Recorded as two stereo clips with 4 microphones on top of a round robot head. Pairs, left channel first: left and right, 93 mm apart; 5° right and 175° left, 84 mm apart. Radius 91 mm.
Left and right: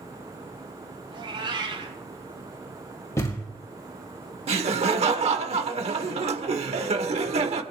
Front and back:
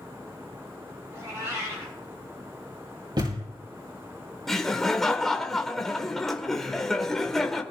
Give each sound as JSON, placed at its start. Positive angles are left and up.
{"t": 1.1, "sound": "a cat meowing", "azimuth_deg": -125, "distance_m": 7.0}
{"t": 3.2, "sound": "a thud", "azimuth_deg": 150, "distance_m": 5.0}
{"t": 4.5, "sound": "laughter", "azimuth_deg": -90, "distance_m": 1.2}